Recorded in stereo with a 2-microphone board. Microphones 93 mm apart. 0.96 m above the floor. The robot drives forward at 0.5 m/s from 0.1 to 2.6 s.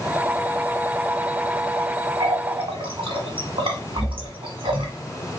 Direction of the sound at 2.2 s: 75° right (ahead or behind).